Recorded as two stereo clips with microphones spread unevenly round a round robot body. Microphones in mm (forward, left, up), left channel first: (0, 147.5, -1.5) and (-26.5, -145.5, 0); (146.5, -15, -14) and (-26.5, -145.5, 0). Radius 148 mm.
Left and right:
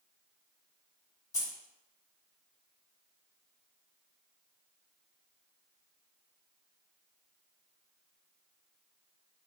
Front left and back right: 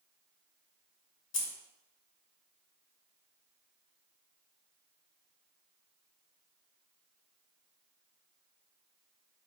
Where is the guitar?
No guitar in this recording.